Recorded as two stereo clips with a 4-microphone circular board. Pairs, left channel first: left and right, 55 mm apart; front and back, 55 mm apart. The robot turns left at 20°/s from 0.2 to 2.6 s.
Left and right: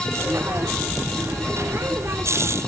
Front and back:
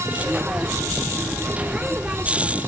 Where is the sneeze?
I don't hear a sneeze.